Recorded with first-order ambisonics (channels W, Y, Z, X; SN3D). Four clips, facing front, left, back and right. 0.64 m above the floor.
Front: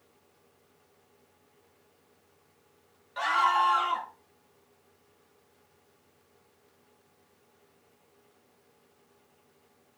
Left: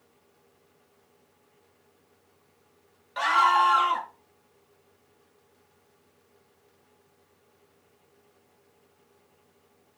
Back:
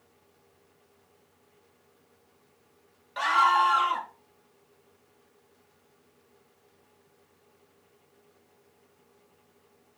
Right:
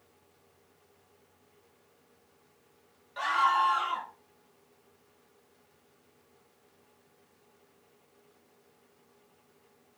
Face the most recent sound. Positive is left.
turn(degrees=120)